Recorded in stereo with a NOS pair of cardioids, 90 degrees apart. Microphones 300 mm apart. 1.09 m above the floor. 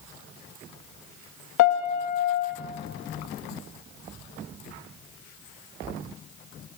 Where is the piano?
70° left, 1.2 m.